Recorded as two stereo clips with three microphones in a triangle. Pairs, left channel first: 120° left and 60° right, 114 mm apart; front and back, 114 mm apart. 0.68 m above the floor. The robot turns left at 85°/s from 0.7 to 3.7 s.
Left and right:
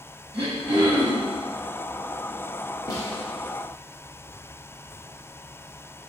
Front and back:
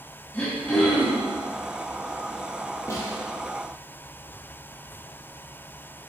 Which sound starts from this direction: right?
Throat clearing, at 0.3 s.